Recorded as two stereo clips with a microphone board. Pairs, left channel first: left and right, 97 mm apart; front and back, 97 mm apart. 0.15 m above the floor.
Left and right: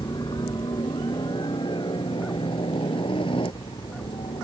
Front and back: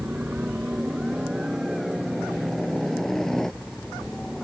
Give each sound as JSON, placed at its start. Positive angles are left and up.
{"t": 0.0, "sound": "a helicopter", "azimuth_deg": 110}